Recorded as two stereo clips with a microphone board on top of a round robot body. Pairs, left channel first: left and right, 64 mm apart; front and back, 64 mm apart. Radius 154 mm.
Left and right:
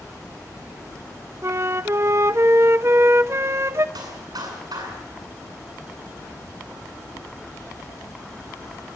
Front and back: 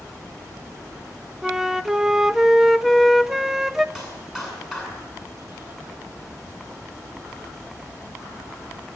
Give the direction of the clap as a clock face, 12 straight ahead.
3 o'clock.